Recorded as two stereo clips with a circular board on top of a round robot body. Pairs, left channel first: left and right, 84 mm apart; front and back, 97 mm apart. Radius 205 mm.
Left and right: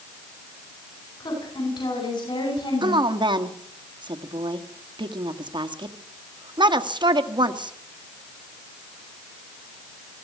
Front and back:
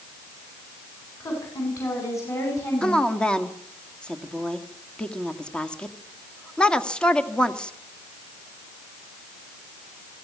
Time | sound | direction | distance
1.2 | a woman speaking | 55° left | 10 m
2.8 | a woman speaking | 80° right | 2 m